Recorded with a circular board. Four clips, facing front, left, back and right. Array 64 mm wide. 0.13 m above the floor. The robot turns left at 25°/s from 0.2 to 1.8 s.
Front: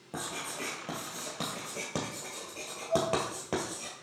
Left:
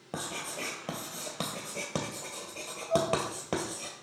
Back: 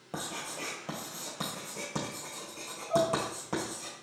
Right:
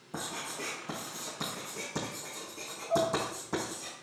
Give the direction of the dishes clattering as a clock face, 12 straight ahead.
5 o'clock.